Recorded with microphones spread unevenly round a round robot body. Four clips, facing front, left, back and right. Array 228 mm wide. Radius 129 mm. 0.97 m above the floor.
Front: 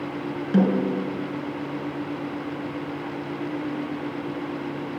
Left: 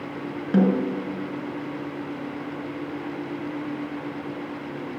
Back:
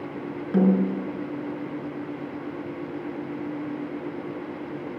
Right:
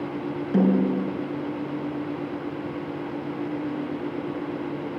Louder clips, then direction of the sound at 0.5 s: Even, even; 95° left.